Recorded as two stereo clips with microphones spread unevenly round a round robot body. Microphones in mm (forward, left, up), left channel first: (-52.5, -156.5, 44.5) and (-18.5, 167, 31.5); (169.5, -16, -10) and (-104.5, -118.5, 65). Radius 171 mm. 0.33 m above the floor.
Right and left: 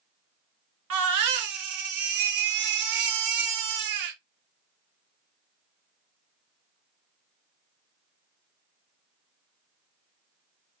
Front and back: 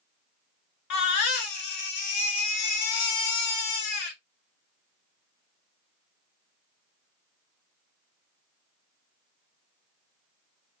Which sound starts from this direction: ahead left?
A baby crying, at 0.9 s.